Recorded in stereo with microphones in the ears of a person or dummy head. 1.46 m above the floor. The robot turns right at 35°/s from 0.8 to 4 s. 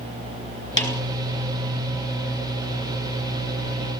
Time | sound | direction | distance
0.8 | a snare drum | 20° left (ahead or behind) | 3.5 m